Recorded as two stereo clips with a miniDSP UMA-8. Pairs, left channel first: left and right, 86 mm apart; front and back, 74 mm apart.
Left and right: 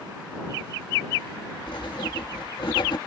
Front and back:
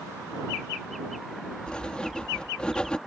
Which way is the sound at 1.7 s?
75° left.